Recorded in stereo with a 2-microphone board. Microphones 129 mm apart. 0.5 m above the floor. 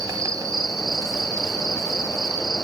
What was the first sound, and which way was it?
An insect, 25° right (ahead or behind).